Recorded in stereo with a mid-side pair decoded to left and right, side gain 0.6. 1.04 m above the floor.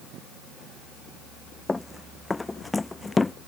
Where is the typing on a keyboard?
I don't hear typing on a keyboard.